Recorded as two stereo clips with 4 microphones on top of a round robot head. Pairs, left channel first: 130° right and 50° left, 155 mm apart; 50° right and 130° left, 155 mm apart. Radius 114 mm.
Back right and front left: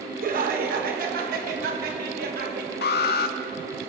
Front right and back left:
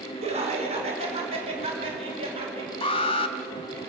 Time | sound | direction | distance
0.2 | laughter | 80° left | 4.5 m
2.8 | an alarm | 110° right | 1.1 m